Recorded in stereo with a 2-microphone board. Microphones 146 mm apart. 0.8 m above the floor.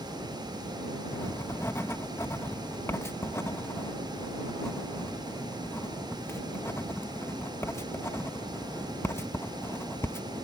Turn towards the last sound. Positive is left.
turn(degrees=15)  # may be behind; listen again after turning